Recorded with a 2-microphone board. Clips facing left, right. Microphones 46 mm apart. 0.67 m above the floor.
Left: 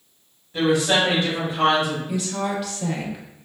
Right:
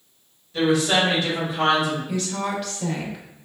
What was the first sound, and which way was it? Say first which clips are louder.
A woman speaking: even; 20° left (ahead or behind).